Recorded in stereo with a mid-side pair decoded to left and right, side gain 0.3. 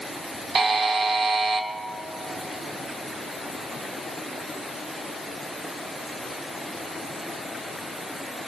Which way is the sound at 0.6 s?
65° right.